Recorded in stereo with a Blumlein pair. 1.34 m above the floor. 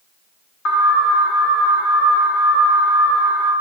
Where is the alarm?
35° left, 0.8 m.